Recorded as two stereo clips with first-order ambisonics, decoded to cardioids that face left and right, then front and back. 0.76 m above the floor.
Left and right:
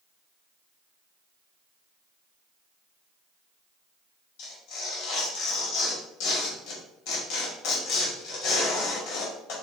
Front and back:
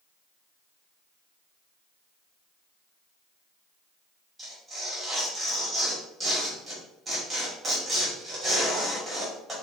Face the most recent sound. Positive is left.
turn(degrees=95)